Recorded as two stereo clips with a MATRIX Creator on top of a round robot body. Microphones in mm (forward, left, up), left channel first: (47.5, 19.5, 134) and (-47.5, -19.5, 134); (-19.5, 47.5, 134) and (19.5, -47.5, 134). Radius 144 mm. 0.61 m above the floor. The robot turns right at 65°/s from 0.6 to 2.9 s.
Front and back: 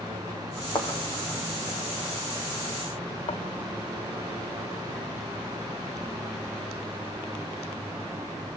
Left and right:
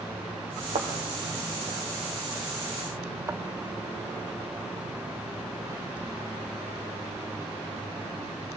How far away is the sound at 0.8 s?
About 3.5 m.